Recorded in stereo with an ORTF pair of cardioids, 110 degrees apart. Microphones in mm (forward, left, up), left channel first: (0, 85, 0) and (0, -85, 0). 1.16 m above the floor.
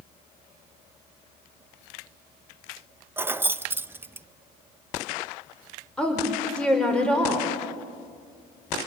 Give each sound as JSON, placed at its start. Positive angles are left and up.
{"t": 3.2, "sound": "keys jangling", "azimuth_deg": -15, "distance_m": 0.6}
{"t": 6.0, "sound": "a woman speaking", "azimuth_deg": 5, "distance_m": 5.0}